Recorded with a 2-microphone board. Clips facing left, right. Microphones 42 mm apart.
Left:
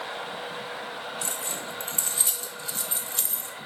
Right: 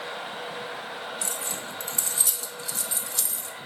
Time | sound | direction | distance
1.2 | keys jangling | 30° left (ahead or behind) | 1.7 m